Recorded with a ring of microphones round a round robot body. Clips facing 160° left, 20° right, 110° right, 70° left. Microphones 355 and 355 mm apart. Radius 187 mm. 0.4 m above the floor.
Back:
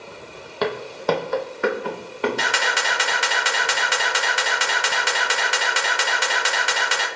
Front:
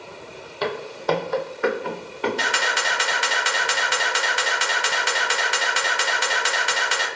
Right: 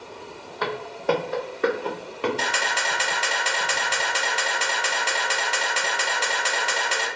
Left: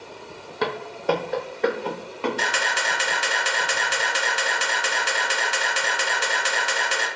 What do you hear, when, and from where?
0.6 s footsteps: 125° left, 0.7 m; by 2.3 s straight behind, 1.8 m
2.4 s a camera shutter: 135° left, 1.0 m